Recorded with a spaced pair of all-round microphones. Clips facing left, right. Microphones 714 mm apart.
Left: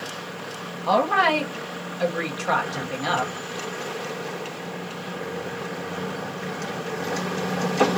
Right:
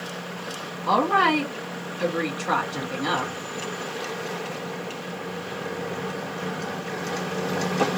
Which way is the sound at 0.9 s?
20° left (ahead or behind).